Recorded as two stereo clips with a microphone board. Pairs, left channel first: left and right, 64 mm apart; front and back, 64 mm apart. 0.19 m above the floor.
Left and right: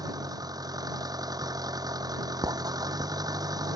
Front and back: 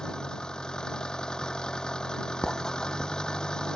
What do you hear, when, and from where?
0.0 s an engine running: 80° right
2.4 s writing: 85° right